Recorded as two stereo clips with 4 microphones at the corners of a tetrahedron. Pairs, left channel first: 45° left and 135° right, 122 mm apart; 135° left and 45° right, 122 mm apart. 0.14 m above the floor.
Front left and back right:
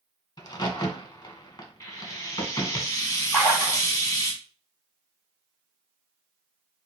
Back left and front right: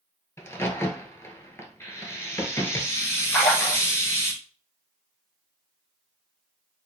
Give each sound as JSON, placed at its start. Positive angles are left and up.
{"t": 0.4, "sound": "a crack", "azimuth_deg": 80, "distance_m": 0.8}
{"t": 1.8, "sound": "frying", "azimuth_deg": 85, "distance_m": 1.1}
{"t": 3.3, "sound": "a splash", "azimuth_deg": 80, "distance_m": 1.6}